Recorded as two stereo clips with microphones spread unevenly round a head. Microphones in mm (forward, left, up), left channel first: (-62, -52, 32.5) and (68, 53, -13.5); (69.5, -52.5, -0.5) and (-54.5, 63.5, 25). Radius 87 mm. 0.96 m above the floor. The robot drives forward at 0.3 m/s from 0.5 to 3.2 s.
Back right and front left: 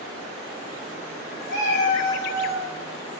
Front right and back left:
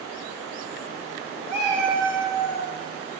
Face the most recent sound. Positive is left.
turn(degrees=-135)